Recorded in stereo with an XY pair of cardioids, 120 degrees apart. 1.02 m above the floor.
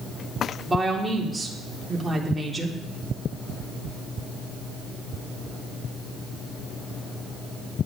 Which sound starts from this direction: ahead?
A woman speaking, at 0.7 s.